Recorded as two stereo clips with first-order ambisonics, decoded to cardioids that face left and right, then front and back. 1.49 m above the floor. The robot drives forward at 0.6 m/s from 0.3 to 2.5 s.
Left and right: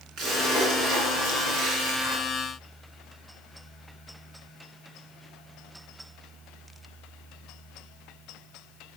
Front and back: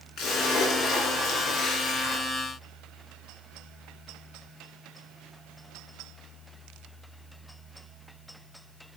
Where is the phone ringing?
I don't hear a phone ringing.